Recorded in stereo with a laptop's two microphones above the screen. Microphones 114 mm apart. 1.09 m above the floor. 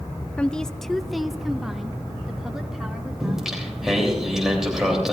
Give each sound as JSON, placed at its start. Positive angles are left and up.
{"t": 0.4, "sound": "a woman speaking", "side_deg": 10, "distance_m": 0.5}
{"t": 3.2, "sound": "singing", "side_deg": -5, "distance_m": 3.0}